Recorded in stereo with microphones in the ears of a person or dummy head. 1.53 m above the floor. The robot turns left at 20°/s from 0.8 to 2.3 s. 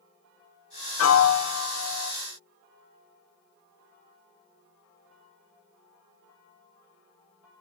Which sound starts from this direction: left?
A piano, at 1.0 s.